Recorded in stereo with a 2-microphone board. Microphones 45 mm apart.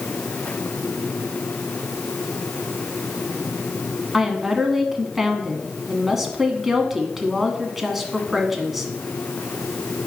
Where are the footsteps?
I don't hear footsteps.